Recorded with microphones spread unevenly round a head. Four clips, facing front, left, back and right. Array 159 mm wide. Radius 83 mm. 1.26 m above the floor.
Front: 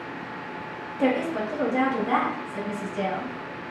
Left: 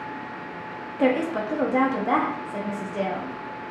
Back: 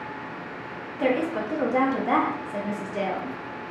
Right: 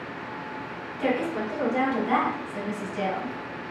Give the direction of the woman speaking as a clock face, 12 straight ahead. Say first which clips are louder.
Left 4 dB, even; 9 o'clock.